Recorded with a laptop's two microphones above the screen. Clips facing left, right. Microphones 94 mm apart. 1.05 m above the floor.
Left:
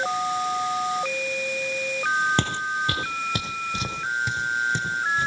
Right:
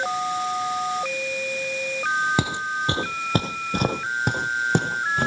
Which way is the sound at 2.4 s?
5° right (ahead or behind).